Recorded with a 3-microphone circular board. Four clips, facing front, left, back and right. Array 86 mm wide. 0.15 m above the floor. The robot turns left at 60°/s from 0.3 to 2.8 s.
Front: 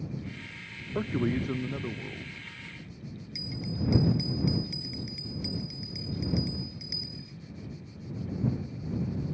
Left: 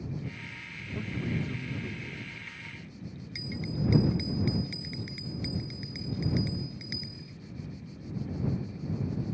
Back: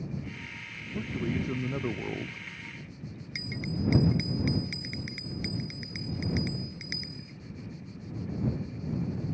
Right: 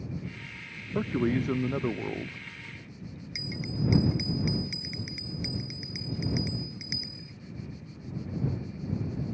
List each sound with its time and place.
0.9 s a man speaking: 50° right; by 2.4 s 135° right
3.4 s a bell: 170° right